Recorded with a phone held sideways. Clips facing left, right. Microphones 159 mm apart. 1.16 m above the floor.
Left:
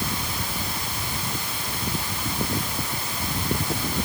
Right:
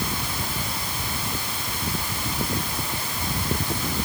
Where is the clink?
No clink in this recording.